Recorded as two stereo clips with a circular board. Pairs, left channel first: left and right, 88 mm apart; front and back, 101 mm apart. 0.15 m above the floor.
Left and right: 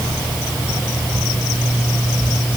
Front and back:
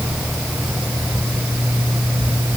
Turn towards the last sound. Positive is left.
No sound to turn to.